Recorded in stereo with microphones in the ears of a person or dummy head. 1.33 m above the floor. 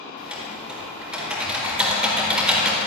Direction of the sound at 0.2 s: 10° right (ahead or behind).